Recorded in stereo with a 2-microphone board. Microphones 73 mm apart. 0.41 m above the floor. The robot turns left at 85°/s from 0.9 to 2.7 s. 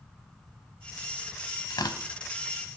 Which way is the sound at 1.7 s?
80° left.